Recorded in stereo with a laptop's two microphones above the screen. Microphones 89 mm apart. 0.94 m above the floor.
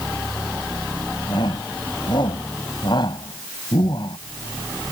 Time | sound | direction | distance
1.3 | a shout | 60° left (ahead or behind) | ?